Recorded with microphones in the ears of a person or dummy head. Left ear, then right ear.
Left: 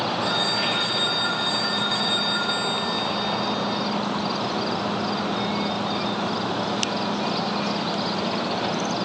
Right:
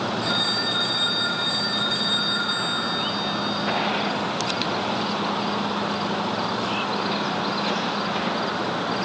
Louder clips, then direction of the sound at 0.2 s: Right 1 dB; centre (ahead or behind).